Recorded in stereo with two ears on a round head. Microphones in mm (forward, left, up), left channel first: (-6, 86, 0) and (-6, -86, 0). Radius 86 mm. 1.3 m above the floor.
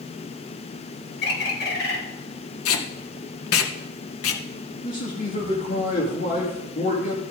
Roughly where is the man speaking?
Left.